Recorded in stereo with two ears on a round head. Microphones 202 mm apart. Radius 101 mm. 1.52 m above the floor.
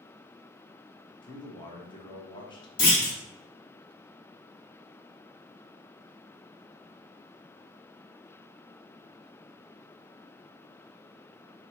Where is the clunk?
20° left (ahead or behind), 1.7 m.